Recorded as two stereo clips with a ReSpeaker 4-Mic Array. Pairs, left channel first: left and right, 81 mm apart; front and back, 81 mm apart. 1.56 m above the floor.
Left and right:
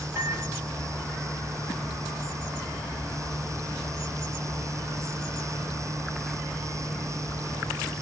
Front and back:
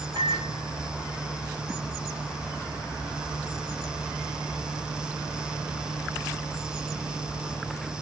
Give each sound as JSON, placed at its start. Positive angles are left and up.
{"t": 0.1, "sound": "a microwave", "azimuth_deg": -150, "distance_m": 7.0}